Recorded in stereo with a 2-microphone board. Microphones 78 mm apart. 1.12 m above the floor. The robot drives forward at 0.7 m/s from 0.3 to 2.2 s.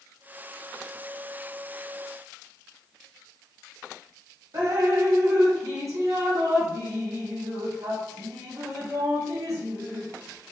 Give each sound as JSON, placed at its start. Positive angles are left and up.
{"t": 4.5, "sound": "dripping", "side_deg": -45, "distance_m": 1.5}